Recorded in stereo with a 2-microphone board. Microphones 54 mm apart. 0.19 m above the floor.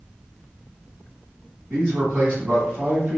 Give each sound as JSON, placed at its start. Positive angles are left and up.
{"t": 1.7, "sound": "a man speaking", "side_deg": -30, "distance_m": 1.5}